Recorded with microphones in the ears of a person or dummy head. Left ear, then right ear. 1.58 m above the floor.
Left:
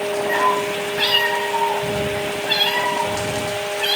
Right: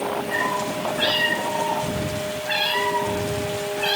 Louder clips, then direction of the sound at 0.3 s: Left 7 dB; 45° left (ahead or behind).